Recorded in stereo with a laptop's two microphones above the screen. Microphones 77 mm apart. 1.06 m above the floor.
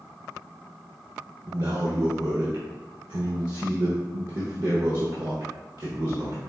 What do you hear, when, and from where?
1.5 s a man speaking: 60° right (ahead or behind), 0.7 m